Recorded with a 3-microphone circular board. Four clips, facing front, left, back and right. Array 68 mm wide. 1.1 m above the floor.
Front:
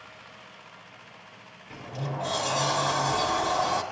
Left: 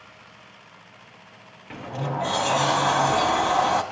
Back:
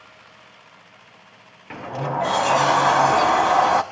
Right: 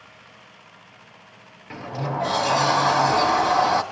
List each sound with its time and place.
1.7 s a sliding door: 175° right, 1.0 m